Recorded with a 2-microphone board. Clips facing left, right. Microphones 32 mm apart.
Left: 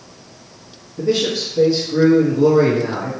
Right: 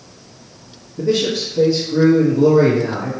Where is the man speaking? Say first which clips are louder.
Right 1 dB; 5° left (ahead or behind), 1.3 m.